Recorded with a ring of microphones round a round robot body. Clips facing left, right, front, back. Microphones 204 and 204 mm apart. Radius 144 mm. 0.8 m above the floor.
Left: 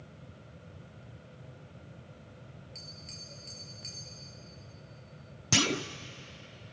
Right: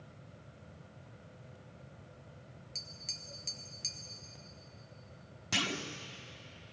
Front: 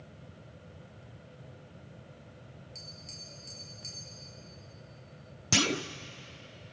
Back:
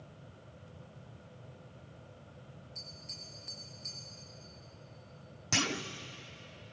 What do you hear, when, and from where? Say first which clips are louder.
2.8 s tapping: left 4 dB, front 2 dB; 60° right, 2.5 m
5.5 s a clunk: left 8 dB, front 6 dB; 50° left, 0.8 m